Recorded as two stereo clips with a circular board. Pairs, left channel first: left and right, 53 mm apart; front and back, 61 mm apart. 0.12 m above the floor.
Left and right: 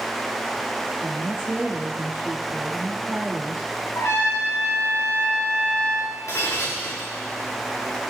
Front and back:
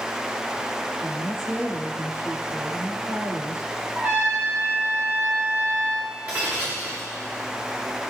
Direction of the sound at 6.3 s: 120° left.